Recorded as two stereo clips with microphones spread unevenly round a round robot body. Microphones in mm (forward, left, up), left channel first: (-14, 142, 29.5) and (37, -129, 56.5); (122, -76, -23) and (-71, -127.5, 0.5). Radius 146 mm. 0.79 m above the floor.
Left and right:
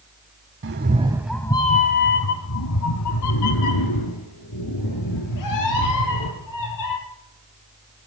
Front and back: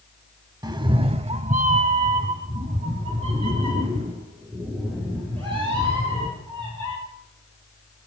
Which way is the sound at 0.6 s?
105° right.